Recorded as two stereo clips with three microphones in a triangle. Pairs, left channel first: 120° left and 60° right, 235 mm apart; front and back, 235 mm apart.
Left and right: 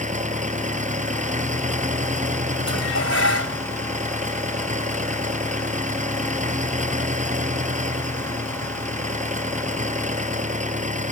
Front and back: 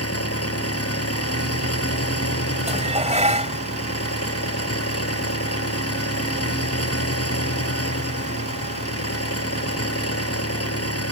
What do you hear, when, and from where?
0.0 s an engine running: straight ahead
2.7 s dishes clattering: 120° left